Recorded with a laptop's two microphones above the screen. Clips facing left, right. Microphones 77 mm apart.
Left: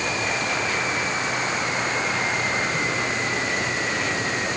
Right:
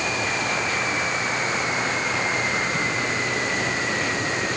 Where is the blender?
No blender in this recording.